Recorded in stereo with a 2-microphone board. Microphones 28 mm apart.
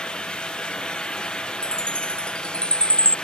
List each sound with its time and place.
1.6 s a chime: 35° left (ahead or behind)